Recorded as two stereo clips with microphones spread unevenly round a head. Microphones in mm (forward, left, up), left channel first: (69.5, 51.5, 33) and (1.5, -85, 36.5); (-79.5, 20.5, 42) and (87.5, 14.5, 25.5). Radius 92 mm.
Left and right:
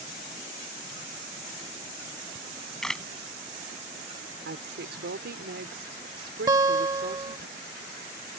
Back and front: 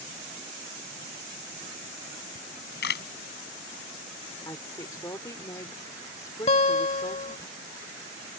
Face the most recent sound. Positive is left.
turn(degrees=-175)